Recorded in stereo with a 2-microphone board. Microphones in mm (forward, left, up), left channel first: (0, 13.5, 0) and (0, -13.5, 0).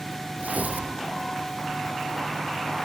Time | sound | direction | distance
0.4 | tearing paper | 70° right (ahead or behind) | 3.5 m